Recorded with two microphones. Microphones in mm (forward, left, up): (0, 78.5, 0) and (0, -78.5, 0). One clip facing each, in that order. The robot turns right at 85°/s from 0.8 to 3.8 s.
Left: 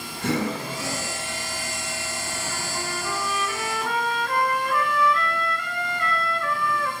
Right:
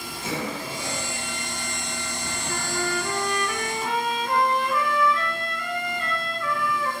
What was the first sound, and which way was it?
Breathing, 65° left (ahead or behind).